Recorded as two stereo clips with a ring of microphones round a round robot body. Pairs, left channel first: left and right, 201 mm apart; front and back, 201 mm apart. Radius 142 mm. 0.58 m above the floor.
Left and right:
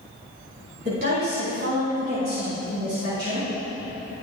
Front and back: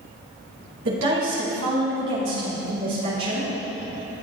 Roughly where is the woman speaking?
Behind right.